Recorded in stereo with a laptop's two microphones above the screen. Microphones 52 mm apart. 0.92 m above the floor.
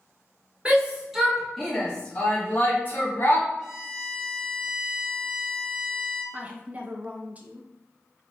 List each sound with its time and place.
0.7 s a shout: 20° right (ahead or behind), 1.2 m; by 3.5 s 45° left (ahead or behind), 1.9 m
3.6 s a violin: 10° right (ahead or behind), 2.0 m
6.3 s a woman speaking: 30° right (ahead or behind), 0.6 m